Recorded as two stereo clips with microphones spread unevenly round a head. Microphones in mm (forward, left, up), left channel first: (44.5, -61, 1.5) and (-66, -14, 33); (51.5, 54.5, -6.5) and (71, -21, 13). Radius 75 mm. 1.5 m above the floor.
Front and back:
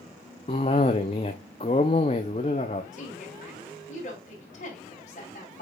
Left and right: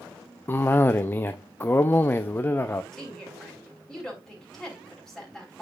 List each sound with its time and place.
0.5 s a cough: 35° left, 0.5 m
2.9 s a woman speaking: 25° left, 3.5 m